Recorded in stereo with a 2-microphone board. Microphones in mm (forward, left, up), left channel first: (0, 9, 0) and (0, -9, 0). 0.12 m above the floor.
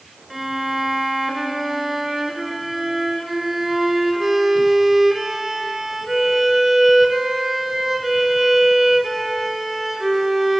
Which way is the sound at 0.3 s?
15° right (ahead or behind).